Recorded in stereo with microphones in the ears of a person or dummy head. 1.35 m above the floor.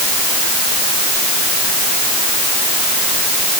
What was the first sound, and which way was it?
Only background noise.